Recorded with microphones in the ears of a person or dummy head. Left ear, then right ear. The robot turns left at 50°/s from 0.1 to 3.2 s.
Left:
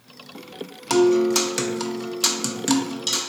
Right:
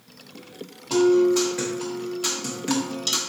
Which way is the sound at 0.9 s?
115° left.